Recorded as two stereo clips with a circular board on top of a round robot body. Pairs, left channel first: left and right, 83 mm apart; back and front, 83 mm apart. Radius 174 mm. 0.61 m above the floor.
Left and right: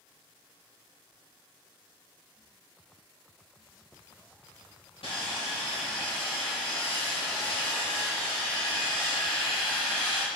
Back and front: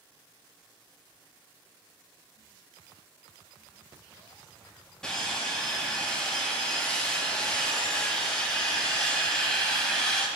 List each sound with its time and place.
5.0 s sawing: 95° left, 4 m